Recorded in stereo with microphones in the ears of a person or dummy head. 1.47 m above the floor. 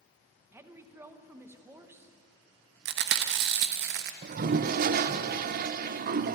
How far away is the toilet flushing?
About 0.7 m.